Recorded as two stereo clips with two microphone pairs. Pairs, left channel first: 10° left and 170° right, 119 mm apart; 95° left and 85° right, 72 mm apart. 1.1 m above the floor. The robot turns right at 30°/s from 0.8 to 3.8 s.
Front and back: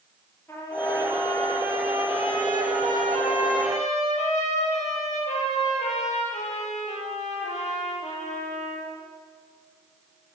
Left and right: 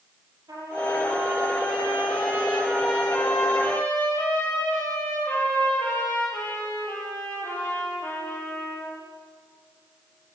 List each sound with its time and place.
0.5 s a trumpet: 60° right, 8 m; by 8.9 s 30° left, 8 m